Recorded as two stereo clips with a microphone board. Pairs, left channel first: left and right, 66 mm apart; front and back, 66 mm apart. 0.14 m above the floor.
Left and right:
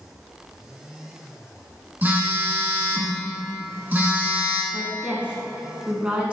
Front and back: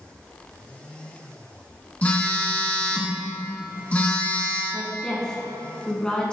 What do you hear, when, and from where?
2.0 s a phone buzzing: 55° right, 1.1 m
4.7 s a woman speaking: 55° right, 1.3 m